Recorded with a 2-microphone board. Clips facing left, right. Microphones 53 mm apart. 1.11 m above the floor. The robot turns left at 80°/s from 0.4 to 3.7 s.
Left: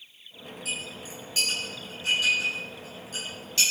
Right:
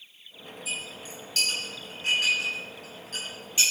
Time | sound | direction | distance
0.7 | a clink | 75° left (ahead or behind) | 6.5 m